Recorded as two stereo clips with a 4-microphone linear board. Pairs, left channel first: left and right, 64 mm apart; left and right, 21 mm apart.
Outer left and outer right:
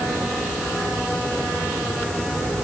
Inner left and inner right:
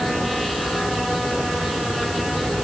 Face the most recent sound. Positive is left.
No sound to turn to.